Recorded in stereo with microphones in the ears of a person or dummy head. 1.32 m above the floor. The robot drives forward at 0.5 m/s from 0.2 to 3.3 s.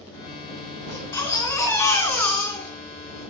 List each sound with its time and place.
0.9 s a baby crying: 20° left (ahead or behind), 2.5 m; by 3.2 s 15° left (ahead or behind), 3.5 m